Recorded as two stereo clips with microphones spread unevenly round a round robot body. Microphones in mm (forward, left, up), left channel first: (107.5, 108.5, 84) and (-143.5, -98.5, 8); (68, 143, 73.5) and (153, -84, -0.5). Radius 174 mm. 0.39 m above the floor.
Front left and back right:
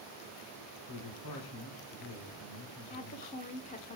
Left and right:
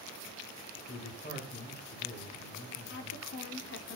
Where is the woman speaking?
115° left, 0.8 m.